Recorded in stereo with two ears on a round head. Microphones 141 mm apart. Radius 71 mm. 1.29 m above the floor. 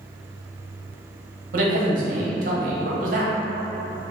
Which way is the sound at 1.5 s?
55° right (ahead or behind).